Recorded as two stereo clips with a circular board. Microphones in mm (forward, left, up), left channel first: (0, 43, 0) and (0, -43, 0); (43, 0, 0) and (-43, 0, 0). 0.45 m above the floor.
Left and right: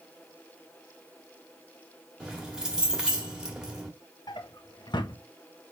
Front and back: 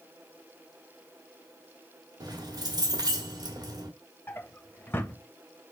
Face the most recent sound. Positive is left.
turn(degrees=65)